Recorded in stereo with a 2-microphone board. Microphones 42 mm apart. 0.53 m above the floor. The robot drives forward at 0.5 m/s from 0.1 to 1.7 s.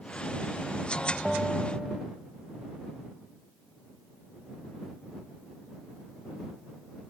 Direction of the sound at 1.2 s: 5° right (ahead or behind).